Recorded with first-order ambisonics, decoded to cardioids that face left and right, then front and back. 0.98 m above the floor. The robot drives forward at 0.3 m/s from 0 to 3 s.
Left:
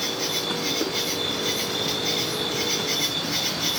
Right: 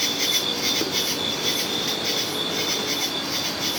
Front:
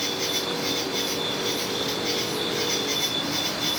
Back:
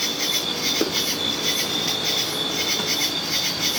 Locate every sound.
0.0 s an insect: 115° right, 0.7 m; by 3.8 s 155° right, 1.4 m